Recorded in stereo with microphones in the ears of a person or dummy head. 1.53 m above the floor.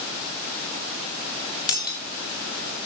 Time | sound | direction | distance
1.7 | breaking glass | 25° left (ahead or behind) | 2.5 m